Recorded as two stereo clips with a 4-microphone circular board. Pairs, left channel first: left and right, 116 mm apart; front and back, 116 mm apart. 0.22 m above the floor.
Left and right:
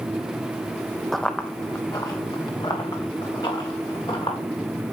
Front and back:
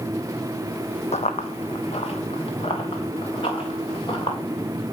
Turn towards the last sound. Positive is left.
turn(degrees=50)